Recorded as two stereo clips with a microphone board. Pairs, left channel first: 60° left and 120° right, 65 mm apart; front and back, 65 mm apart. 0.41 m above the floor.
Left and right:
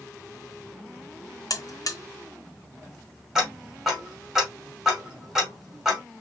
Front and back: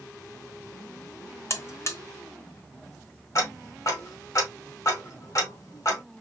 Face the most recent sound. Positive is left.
turn(degrees=-40)